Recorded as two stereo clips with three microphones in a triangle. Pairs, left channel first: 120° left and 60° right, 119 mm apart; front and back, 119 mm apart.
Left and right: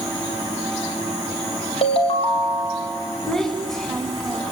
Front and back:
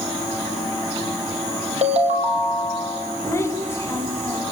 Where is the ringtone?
155° left, 3 m.